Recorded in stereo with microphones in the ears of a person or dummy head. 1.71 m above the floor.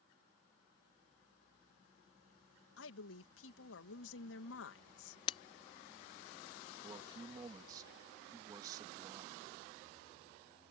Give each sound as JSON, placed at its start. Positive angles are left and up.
{"t": 2.8, "sound": "a woman speaking", "side_deg": 80}
{"t": 5.3, "sound": "breaking glass", "side_deg": 30}
{"t": 6.8, "sound": "a man speaking", "side_deg": -20}